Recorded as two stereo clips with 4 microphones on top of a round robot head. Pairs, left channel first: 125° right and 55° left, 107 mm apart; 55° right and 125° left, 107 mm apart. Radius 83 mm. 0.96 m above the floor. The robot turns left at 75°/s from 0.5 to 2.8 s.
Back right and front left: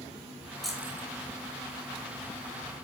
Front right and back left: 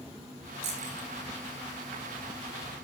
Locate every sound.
0.6 s keys jangling: 145° left, 8 m; by 1.1 s 115° left, 8 m